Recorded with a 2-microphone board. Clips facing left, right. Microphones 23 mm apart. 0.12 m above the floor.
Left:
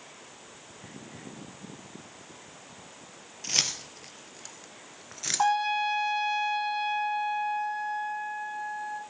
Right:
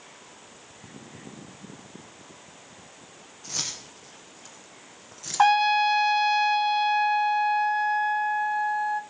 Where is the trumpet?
45° right (ahead or behind), 0.8 m.